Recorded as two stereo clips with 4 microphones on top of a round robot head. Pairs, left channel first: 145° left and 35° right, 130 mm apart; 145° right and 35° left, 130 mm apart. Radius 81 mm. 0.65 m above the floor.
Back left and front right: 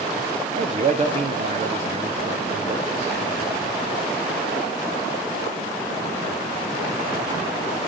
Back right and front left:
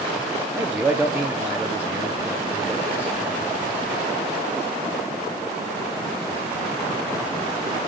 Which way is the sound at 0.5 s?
40° right.